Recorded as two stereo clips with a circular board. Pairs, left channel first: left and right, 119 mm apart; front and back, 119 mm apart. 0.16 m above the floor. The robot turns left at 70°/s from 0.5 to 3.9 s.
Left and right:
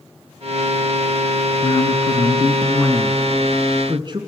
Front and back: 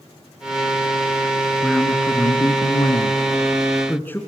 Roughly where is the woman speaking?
Left.